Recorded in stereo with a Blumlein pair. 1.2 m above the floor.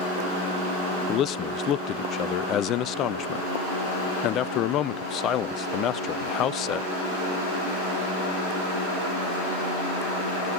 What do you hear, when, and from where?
1.1 s a man speaking: 30° left, 0.5 m